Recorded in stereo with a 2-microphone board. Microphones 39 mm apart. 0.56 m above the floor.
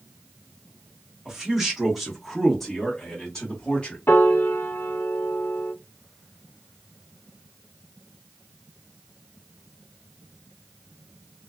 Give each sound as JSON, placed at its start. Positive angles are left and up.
{"t": 1.2, "sound": "a man speaking", "side_deg": -10, "distance_m": 1.6}
{"t": 4.1, "sound": "a piano", "side_deg": 60, "distance_m": 0.6}